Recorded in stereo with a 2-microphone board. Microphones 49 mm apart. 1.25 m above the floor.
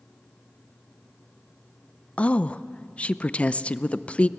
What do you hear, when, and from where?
2.2 s a woman speaking: 25° left (ahead or behind), 0.5 m